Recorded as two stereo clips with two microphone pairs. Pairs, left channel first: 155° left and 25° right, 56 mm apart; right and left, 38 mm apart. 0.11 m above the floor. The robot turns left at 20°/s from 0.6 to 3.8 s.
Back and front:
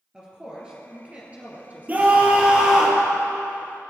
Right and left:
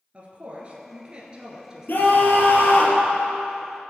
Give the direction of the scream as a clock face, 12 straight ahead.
3 o'clock.